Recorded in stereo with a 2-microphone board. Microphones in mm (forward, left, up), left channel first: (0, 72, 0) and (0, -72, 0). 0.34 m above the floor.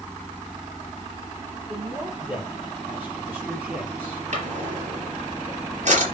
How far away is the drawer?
About 4.5 m.